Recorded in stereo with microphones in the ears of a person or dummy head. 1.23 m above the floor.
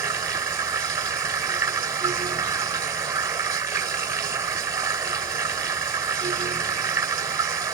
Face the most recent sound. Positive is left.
turn(degrees=-20)  # may be behind; listen again after turning